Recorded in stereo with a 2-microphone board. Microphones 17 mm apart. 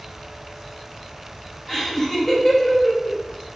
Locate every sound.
1.7 s laughter: 10° left (ahead or behind), 2.5 m